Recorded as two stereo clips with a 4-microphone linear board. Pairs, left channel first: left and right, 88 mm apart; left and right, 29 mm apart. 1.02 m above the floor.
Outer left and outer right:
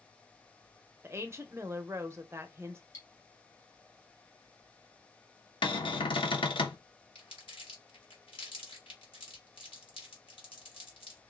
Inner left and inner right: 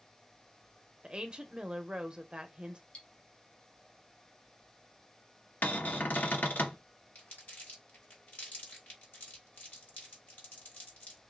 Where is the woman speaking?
30° right (ahead or behind), 0.7 m.